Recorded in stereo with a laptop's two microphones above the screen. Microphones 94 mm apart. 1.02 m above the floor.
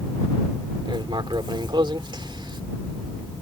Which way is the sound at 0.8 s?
60° right (ahead or behind).